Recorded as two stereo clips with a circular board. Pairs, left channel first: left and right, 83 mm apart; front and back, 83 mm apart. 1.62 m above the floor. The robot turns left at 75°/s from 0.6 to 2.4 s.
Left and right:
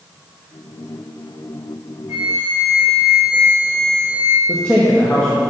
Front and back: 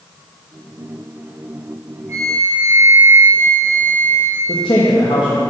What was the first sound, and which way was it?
A flute, straight behind.